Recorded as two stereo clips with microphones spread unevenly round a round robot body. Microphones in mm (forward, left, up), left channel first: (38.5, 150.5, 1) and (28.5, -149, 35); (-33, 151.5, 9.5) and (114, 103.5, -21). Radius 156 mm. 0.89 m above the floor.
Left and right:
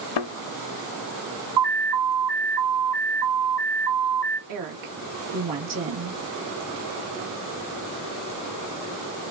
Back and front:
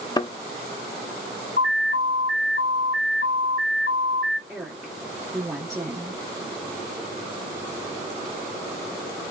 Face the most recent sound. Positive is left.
turn(degrees=-90)